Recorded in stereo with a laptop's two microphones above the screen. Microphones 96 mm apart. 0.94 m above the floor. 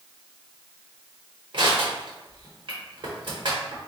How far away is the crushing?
About 1.0 m.